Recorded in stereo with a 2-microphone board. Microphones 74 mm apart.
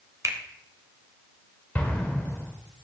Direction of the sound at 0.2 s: 40° right (ahead or behind).